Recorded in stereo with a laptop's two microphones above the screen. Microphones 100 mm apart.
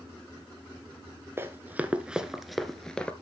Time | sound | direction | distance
1.4 | running footsteps | 25° right (ahead or behind) | 1.0 m